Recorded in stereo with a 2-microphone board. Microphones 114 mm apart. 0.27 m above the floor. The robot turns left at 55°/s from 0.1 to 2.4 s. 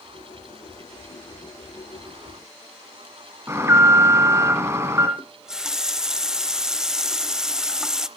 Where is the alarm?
25° right (ahead or behind), 2 m.